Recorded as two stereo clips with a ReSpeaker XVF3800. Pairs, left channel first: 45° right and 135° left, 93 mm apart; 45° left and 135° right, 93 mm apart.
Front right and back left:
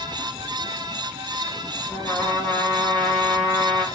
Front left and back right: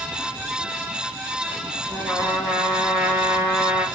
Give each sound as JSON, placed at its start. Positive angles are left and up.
{"t": 1.9, "sound": "a trumpet", "azimuth_deg": -70, "distance_m": 0.9}